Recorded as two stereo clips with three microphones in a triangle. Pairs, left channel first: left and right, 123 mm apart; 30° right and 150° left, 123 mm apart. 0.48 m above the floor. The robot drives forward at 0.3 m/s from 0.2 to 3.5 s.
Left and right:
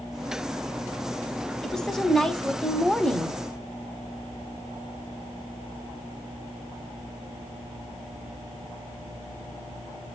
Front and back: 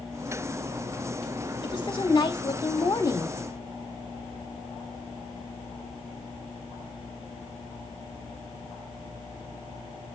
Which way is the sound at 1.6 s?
5° left.